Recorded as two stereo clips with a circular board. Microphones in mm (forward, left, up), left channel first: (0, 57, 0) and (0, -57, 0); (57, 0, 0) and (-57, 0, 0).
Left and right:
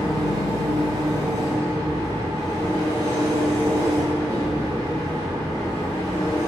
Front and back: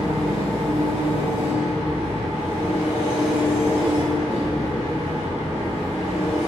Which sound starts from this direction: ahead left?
An engine running, at 0.0 s.